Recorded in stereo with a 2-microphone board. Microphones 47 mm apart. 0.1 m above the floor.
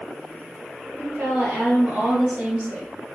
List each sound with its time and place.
1.0 s a woman speaking: 45° right (ahead or behind), 1.9 m; by 2.9 s 30° right (ahead or behind), 3 m